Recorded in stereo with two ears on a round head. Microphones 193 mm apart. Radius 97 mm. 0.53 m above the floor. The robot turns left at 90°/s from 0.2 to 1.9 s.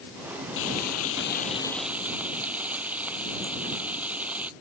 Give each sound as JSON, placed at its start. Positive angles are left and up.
{"t": 0.6, "sound": "frying", "azimuth_deg": 115}